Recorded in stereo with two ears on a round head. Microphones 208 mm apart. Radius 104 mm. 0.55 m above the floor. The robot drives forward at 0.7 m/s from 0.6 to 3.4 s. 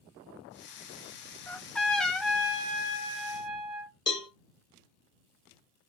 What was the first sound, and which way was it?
A trumpet, 5° left (ahead or behind).